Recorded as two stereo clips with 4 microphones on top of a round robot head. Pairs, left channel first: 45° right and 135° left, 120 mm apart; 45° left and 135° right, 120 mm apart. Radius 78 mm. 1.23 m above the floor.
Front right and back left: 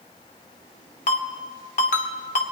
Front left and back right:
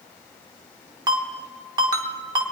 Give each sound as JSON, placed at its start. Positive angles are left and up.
{"t": 1.1, "sound": "a ringtone", "azimuth_deg": -80, "distance_m": 1.1}